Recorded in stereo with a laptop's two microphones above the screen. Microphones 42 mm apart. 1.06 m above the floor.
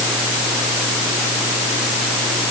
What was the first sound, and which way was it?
Only background noise.